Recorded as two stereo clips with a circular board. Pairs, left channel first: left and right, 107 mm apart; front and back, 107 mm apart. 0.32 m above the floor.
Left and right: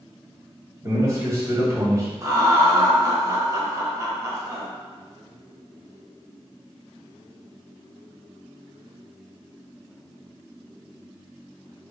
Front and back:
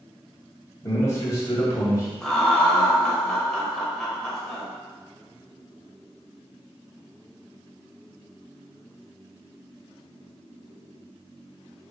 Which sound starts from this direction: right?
Laughter, at 2.2 s.